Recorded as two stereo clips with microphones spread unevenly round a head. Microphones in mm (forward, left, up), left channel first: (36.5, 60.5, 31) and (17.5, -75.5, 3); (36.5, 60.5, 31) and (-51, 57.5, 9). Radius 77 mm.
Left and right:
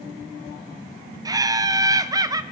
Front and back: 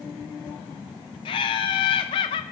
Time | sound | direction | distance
1.2 | laughter | 40° right | 0.5 m